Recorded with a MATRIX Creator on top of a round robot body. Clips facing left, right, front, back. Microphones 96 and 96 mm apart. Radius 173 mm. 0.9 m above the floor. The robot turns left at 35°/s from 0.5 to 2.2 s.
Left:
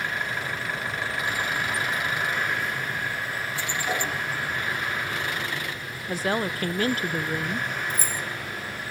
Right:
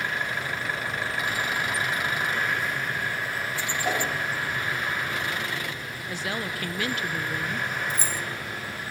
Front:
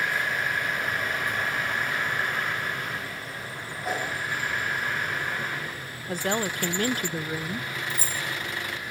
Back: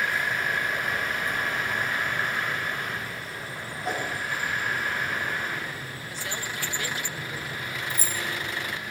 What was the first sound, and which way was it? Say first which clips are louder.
A whoosh: right 2 dB, even; 90° right.